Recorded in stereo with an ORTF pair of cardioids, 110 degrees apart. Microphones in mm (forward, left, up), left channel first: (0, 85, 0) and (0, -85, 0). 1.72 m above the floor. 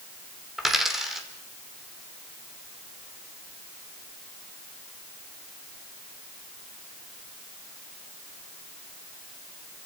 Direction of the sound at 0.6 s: 5° right.